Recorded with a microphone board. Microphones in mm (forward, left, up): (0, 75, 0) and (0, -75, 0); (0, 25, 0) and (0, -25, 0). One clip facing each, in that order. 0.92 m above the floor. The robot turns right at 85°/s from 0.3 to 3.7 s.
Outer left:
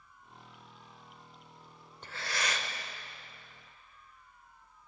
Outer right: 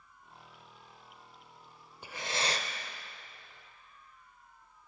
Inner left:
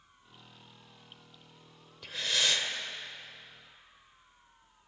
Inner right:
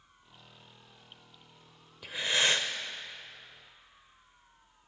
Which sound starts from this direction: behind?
Breathing, at 2.0 s.